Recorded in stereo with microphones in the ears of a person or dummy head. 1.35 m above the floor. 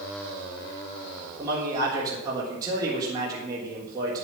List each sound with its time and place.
1.4 s a man speaking: 20° right (ahead or behind), 3 m